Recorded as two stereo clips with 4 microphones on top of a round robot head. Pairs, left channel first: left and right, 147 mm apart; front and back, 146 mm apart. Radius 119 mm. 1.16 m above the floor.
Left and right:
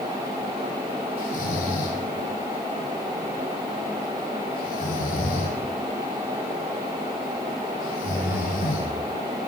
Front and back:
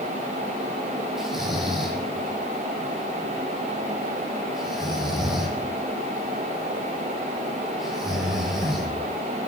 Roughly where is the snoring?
Left.